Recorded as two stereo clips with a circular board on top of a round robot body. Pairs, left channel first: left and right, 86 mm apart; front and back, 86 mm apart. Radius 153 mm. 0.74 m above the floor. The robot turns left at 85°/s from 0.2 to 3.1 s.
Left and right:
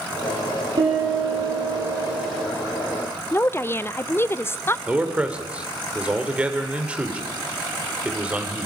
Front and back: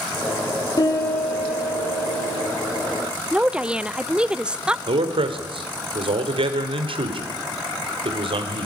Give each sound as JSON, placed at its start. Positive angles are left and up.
{"t": 0.8, "sound": "a piano", "azimuth_deg": -50, "distance_m": 7.5}
{"t": 3.3, "sound": "a woman speaking", "azimuth_deg": 110, "distance_m": 0.8}
{"t": 4.9, "sound": "a man speaking", "azimuth_deg": -165, "distance_m": 2.5}